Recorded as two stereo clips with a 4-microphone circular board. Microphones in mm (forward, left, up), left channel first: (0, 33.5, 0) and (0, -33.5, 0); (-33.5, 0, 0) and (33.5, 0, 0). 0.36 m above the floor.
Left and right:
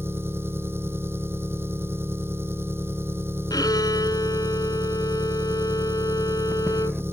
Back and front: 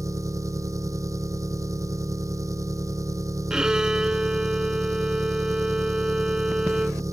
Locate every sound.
0.0 s an engine running: 35° right
3.5 s a violin: 80° left